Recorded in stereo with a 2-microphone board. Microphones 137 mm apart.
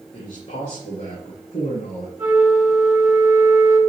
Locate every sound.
0.1 s a man speaking: 75° left (ahead or behind), 2.5 m; by 2.1 s 65° left (ahead or behind), 3 m
2.2 s a flute: centre (ahead or behind), 3 m